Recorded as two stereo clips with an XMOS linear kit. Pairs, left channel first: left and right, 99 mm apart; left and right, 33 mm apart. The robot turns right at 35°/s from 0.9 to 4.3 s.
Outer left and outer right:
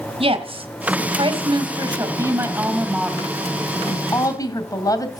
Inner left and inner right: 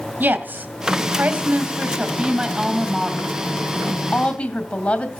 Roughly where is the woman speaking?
Right.